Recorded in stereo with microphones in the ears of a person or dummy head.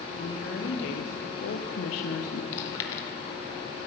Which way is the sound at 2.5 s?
35° left (ahead or behind).